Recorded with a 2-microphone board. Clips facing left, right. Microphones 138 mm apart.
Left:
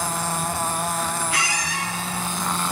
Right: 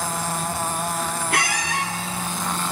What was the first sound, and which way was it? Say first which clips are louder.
A squeak: right 3 dB; 60° right (ahead or behind).